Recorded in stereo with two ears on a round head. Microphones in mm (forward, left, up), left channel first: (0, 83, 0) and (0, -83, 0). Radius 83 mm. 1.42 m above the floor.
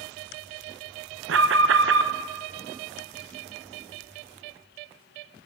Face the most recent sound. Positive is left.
turn(degrees=-70)  # may be behind; listen again after turning